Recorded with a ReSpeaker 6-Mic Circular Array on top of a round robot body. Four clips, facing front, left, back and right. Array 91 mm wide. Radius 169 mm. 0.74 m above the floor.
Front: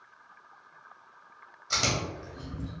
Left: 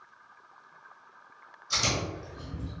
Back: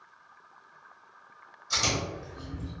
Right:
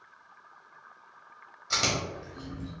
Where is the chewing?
60° right, 1.9 m.